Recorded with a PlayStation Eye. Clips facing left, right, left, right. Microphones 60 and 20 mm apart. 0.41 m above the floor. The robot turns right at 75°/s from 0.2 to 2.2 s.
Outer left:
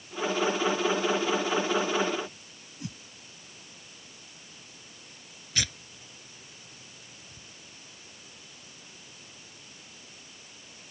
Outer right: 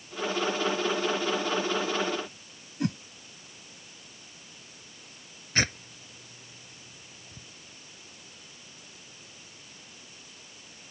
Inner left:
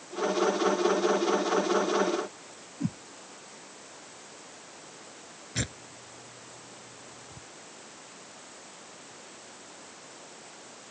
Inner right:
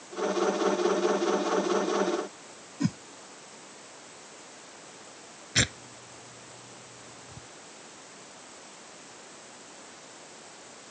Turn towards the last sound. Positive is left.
turn(degrees=-35)  # may be behind; listen again after turning